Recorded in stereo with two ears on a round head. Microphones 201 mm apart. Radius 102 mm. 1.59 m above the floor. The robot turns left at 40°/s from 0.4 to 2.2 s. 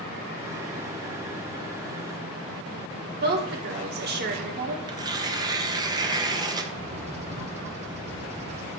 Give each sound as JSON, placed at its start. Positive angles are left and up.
{"t": 3.2, "sound": "a woman speaking", "side_deg": -50, "distance_m": 1.5}
{"t": 4.9, "sound": "tearing paper", "side_deg": -20, "distance_m": 0.7}
{"t": 6.7, "sound": "a bird", "side_deg": -30, "distance_m": 0.9}